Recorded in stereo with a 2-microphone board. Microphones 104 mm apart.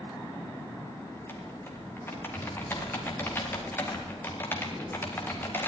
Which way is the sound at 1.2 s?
20° left (ahead or behind).